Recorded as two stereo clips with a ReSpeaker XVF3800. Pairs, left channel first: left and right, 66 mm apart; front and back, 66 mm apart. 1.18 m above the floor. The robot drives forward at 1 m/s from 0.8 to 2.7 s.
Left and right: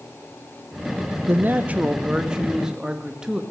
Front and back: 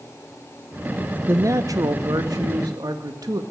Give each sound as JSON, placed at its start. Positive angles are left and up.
{"t": 1.3, "sound": "a man speaking", "azimuth_deg": -135, "distance_m": 0.5}